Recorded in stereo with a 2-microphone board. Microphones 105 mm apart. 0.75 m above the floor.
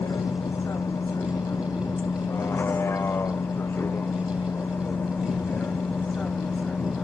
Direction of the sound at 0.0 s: 30° left (ahead or behind).